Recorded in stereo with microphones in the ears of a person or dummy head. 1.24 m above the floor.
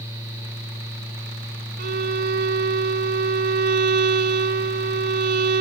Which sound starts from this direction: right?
A violin, at 1.8 s.